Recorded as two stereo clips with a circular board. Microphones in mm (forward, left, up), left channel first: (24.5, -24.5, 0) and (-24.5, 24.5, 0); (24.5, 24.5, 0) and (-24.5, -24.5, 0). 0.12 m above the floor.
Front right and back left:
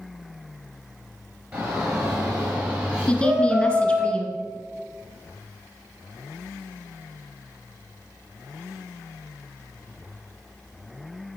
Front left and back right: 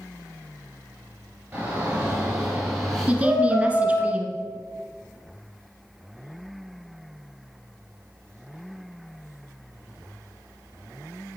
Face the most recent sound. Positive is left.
turn(degrees=-95)